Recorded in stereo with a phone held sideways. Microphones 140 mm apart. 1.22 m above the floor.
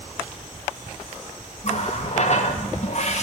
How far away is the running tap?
About 0.8 m.